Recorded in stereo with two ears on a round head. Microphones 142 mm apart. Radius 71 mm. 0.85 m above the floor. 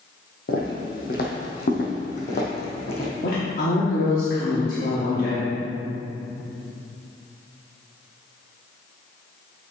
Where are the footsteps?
60° left (ahead or behind), 1.6 m; by 3.1 s 40° left (ahead or behind), 2 m.